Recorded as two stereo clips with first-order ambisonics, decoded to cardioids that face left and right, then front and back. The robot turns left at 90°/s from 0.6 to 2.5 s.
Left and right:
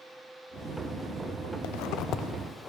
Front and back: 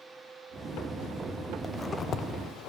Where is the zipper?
95° left, 0.5 m; by 2.7 s 15° left, 0.5 m.